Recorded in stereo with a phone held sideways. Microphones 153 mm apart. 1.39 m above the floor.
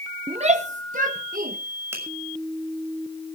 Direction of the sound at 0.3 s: 40° right (ahead or behind).